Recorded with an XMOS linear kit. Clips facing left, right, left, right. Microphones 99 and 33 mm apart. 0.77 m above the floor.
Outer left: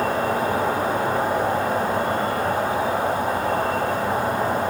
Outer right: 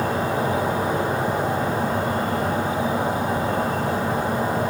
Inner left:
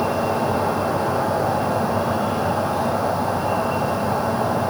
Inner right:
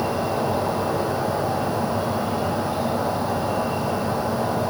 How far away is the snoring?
No snoring in this recording.